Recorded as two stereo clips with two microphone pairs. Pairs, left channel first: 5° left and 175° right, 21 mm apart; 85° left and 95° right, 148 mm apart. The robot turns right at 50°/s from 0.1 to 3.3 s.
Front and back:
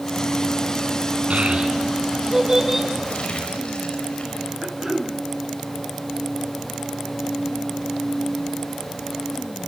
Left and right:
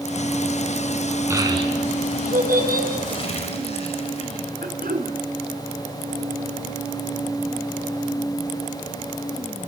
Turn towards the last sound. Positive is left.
turn(degrees=-100)